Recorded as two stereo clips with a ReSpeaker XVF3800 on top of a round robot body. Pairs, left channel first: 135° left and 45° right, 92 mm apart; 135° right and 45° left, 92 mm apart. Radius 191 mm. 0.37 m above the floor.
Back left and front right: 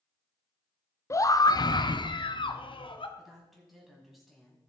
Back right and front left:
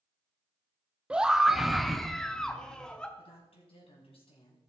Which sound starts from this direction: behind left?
A scream, at 1.1 s.